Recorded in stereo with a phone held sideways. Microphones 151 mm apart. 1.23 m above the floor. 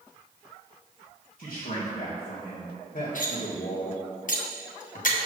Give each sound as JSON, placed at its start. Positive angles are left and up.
{"t": 1.4, "sound": "a man speaking", "side_deg": 65, "distance_m": 1.6}
{"t": 3.1, "sound": "cutlery clinking", "side_deg": 60, "distance_m": 0.9}